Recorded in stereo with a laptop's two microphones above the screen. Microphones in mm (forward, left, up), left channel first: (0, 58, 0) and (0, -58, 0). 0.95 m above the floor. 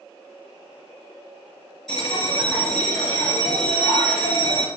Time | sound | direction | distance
1.9 | a bell | 5° left (ahead or behind) | 2.5 m